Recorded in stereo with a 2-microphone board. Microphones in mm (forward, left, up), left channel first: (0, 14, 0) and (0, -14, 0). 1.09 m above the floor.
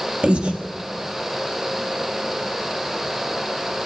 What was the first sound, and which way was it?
Breathing, 40° right (ahead or behind).